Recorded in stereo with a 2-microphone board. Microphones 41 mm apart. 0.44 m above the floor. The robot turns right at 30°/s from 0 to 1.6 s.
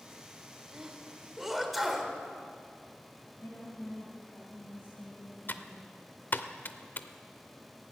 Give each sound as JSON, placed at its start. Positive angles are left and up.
{"t": 0.7, "sound": "a sneeze", "side_deg": -20, "distance_m": 1.6}
{"t": 3.4, "sound": "a woman speaking", "side_deg": 70, "distance_m": 3.0}
{"t": 5.5, "sound": "typing on a keyboard", "side_deg": 50, "distance_m": 0.5}